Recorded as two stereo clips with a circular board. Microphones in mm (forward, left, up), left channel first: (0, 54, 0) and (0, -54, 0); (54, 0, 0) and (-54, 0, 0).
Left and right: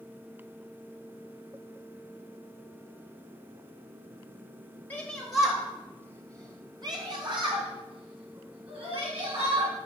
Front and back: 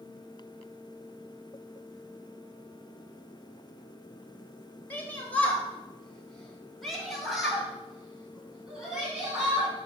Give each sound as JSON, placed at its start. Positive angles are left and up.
{"t": 4.9, "sound": "a shout", "azimuth_deg": 40, "distance_m": 1.2}